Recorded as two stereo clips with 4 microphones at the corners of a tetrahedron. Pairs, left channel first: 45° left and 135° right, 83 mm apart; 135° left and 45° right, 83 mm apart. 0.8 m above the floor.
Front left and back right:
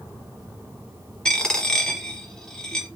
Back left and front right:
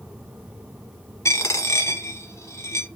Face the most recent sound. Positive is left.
turn(degrees=120)